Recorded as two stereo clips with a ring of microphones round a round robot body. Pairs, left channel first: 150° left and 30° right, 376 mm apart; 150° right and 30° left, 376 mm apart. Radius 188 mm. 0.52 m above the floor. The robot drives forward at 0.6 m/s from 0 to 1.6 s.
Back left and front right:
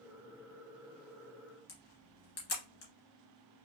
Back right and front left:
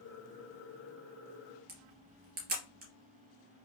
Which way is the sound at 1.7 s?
100° left.